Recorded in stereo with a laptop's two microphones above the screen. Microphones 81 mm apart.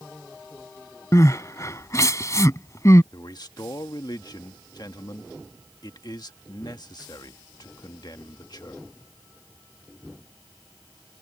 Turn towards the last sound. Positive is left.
turn(degrees=50)  # may be behind; listen again after turning